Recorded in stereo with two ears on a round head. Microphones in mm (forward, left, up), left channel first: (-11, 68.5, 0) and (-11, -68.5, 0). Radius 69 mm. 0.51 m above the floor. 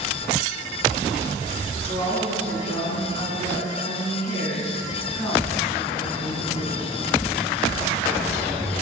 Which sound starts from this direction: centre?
A woman speaking, at 1.9 s.